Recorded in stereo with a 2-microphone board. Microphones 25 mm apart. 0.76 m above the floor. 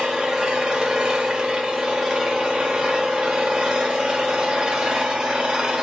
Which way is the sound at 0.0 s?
30° right (ahead or behind).